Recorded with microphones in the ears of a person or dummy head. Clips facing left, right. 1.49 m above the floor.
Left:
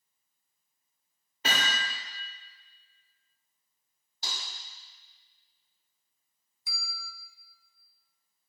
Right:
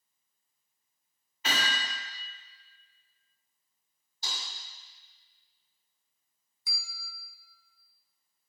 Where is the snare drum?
55° left (ahead or behind), 3.5 m.